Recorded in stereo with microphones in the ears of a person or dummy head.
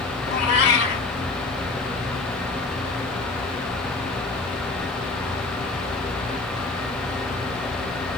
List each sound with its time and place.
0.3 s a cat meowing: 55° left (ahead or behind), 1.9 m